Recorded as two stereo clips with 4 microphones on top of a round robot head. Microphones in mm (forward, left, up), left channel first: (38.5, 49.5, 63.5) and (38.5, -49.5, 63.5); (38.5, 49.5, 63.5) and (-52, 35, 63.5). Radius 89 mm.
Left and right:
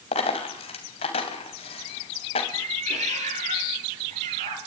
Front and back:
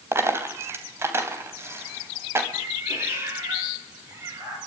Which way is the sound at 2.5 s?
100° right.